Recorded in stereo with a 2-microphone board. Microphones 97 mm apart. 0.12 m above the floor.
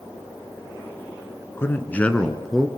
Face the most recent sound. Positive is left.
turn(degrees=-5)  # may be behind; listen again after turning